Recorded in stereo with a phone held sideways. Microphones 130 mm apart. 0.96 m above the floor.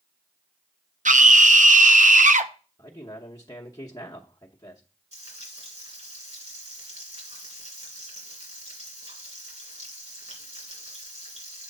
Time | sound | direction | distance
1.1 | a scream | 75° right (ahead or behind) | 0.7 m
2.8 | a man speaking | 25° left (ahead or behind) | 0.9 m
5.1 | frying | 60° right (ahead or behind) | 3 m